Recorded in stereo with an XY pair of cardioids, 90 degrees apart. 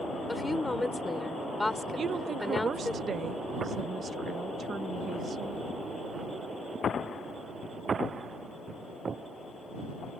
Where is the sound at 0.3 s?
10° left.